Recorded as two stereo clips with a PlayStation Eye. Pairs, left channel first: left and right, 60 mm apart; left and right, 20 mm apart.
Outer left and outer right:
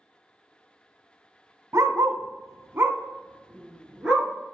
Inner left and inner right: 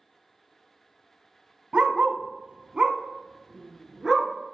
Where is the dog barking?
60° right (ahead or behind), 0.6 m; by 4.3 s 10° right (ahead or behind), 1.6 m.